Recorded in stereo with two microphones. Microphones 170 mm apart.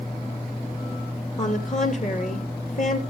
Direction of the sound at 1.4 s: 50° left (ahead or behind).